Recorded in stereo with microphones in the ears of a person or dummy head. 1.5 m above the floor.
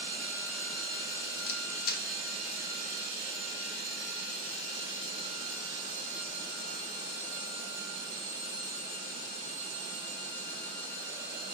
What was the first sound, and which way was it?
A camera shutter, 60° left (ahead or behind).